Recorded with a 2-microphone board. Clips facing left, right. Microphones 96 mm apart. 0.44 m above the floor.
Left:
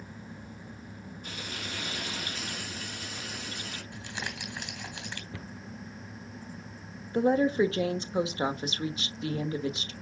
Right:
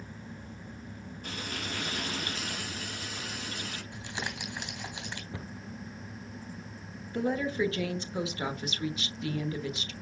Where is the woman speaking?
30° left (ahead or behind), 1.0 m.